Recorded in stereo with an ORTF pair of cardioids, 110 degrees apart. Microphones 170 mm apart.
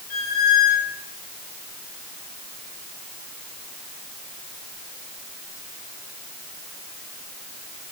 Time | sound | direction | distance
0.1 | a squeak | 65° left | 6 m